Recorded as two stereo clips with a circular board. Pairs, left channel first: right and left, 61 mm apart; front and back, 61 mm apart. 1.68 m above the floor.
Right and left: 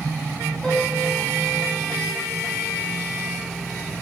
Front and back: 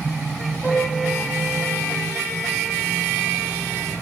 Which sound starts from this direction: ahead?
A piano, at 0.6 s.